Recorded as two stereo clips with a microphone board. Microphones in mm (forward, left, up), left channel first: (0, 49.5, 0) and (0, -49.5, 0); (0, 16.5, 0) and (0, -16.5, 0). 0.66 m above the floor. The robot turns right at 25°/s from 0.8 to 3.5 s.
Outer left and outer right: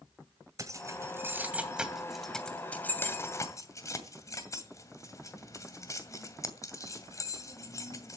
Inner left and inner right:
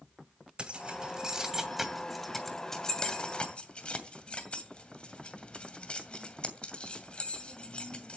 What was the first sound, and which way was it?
Keys jangling, 30° right (ahead or behind).